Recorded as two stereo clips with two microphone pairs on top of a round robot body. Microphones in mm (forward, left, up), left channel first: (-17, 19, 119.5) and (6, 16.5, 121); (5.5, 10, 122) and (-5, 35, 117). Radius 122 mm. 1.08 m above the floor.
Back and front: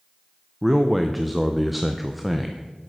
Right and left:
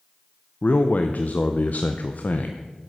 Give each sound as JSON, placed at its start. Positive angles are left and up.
{"t": 0.6, "sound": "a man speaking", "azimuth_deg": -95, "distance_m": 0.5}